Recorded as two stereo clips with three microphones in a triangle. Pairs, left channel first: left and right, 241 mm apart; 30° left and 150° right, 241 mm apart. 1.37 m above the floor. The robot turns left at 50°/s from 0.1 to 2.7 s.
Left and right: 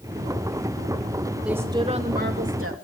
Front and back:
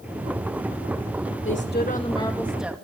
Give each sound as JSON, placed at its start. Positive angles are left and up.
{"t": 1.4, "sound": "a woman speaking", "azimuth_deg": -5, "distance_m": 2.5}